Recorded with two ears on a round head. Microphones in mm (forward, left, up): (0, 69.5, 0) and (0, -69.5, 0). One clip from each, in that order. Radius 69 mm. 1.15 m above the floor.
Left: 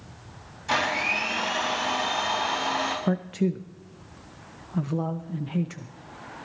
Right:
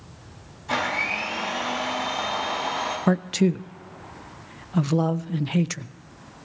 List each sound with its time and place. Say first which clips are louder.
0.7 s a blender: even; 50° left (ahead or behind), 5 m
3.1 s a man speaking: right 5 dB; 70° right (ahead or behind), 0.5 m